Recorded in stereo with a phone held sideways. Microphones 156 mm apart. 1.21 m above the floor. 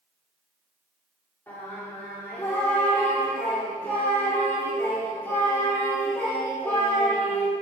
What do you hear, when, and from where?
1.5 s singing: 15° left (ahead or behind), 2.5 m